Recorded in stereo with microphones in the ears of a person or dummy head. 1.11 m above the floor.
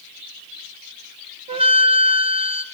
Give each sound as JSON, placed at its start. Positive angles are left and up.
{"t": 1.5, "sound": "a flute", "side_deg": -30, "distance_m": 1.5}